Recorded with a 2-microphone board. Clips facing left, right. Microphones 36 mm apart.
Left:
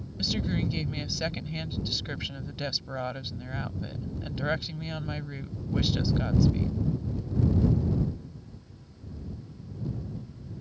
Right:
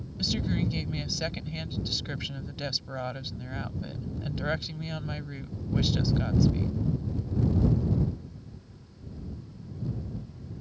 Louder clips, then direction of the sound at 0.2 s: Even; 5° left (ahead or behind).